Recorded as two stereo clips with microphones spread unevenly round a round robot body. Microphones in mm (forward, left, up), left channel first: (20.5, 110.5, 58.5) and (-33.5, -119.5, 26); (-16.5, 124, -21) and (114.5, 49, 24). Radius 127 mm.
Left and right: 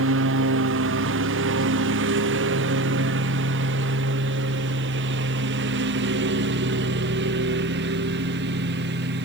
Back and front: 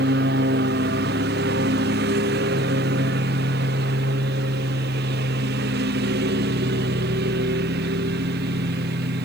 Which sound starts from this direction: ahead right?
A lawn mower, at 0.0 s.